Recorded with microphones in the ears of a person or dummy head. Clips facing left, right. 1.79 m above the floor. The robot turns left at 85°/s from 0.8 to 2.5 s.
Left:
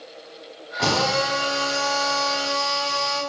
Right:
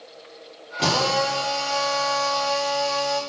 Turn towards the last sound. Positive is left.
turn(degrees=55)